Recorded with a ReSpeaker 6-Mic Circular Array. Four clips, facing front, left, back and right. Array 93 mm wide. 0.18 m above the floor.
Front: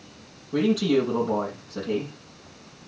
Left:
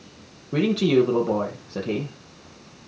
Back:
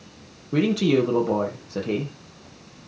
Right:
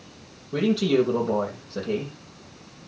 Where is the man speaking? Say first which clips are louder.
Left 2 dB, back 1 dB; 135° left, 5.5 m.